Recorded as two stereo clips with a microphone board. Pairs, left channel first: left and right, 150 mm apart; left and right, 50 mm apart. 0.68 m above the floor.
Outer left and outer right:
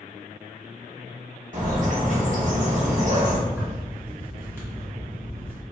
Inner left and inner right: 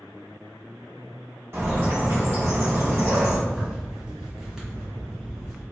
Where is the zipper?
15° right (ahead or behind), 1.2 m.